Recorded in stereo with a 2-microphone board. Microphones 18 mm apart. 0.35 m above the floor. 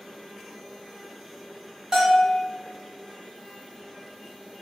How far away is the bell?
About 1.6 m.